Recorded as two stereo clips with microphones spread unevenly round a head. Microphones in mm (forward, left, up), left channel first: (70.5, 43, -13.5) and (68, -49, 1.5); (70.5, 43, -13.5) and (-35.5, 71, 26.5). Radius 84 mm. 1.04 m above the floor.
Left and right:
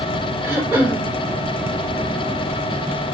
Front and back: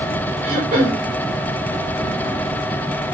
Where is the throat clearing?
175° right, 4 m.